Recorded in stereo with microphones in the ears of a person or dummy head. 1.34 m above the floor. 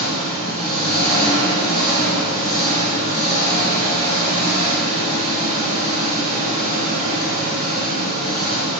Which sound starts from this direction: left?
An engine running, at 0.0 s.